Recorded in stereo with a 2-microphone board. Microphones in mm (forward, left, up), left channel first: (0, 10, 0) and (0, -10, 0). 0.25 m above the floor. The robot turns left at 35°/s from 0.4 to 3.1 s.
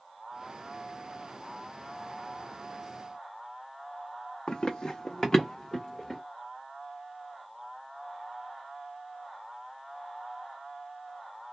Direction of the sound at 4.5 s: 60° left (ahead or behind).